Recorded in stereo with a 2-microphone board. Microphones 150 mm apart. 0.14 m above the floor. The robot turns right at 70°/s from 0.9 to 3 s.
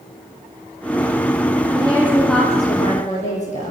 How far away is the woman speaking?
About 6.5 m.